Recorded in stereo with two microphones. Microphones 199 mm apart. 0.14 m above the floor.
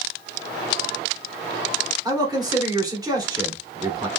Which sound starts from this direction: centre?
A man speaking, at 2.0 s.